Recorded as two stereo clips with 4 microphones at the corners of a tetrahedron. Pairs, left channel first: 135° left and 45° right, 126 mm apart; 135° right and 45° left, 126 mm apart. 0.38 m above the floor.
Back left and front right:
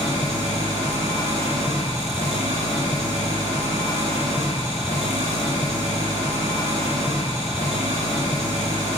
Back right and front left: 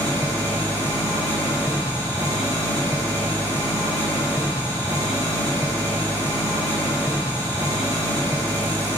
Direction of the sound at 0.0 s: 15° right.